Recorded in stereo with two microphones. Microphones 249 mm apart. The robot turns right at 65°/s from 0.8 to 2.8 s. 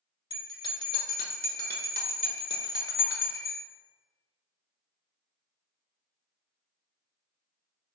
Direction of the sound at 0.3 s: 30° left.